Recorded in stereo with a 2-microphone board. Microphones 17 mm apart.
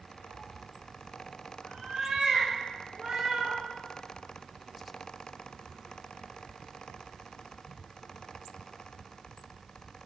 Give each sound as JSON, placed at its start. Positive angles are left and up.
{"t": 0.3, "sound": "a cat meowing", "side_deg": -65, "distance_m": 1.8}